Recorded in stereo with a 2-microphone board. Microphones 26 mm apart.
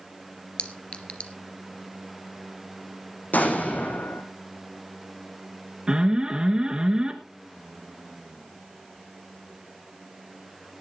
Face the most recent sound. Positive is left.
turn(degrees=-30)  # may be behind; listen again after turning